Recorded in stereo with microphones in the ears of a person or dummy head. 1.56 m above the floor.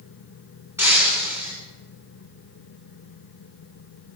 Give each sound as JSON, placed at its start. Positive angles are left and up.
{"t": 0.8, "sound": "breaking glass", "side_deg": -15, "distance_m": 7.5}